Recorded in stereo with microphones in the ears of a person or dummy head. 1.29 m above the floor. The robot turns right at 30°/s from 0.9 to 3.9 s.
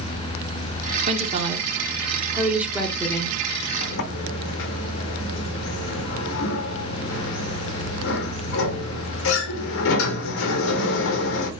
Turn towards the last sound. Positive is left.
turn(degrees=75)  # may be behind; listen again after turning